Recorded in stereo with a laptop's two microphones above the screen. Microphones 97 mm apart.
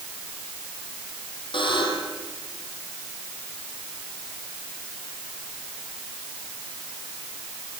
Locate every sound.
1.5 s a buzzer: 60° left (ahead or behind), 7.5 m